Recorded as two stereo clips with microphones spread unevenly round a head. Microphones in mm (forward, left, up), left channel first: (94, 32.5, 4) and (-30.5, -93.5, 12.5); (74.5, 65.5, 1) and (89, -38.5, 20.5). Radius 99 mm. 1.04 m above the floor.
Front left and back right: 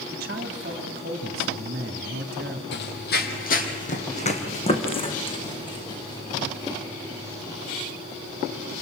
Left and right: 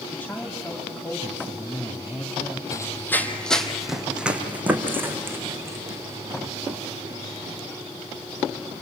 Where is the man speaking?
Straight behind, 2.5 m.